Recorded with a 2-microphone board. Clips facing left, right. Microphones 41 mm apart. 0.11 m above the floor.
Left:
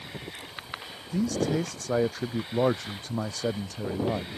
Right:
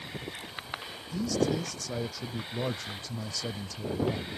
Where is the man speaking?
40° left (ahead or behind).